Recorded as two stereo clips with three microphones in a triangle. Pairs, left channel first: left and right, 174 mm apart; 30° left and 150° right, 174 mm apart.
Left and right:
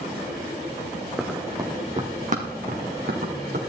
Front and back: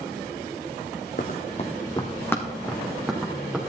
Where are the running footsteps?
5° right, 1.3 m; by 3.6 s 65° right, 3 m.